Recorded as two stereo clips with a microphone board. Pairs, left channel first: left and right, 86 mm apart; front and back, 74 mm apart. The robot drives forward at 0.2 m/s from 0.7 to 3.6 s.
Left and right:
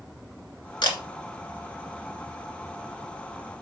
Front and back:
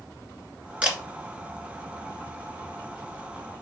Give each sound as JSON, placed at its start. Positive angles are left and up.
{"t": 0.8, "sound": "a camera shutter", "azimuth_deg": 110, "distance_m": 1.9}